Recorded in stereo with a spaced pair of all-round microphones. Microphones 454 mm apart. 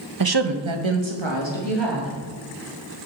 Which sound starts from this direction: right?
A woman speaking, at 0.2 s.